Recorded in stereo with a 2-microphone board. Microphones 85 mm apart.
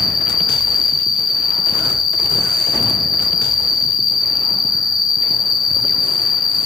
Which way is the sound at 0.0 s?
50° left (ahead or behind).